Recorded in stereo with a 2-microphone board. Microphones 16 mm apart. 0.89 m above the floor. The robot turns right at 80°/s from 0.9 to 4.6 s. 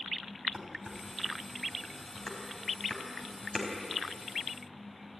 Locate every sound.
0.5 s dishes clattering: 45° right (ahead or behind), 4.5 m; by 3.7 s centre (ahead or behind), 4.5 m